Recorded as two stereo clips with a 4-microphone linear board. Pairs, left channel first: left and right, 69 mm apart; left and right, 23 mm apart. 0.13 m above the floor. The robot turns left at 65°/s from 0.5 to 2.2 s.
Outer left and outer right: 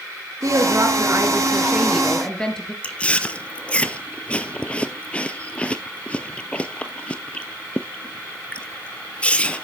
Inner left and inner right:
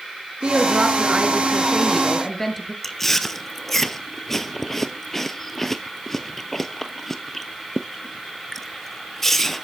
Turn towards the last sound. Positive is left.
turn(degrees=15)  # may be behind; listen again after turning